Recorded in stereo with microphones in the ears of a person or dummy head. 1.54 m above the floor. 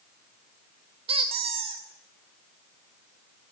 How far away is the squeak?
About 3 m.